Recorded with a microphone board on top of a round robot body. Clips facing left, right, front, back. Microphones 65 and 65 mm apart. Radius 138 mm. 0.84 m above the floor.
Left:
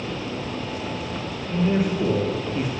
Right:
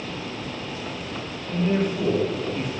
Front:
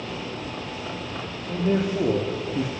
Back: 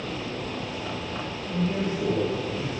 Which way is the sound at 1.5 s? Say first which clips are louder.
Left 1 dB, front 4 dB; 5° left.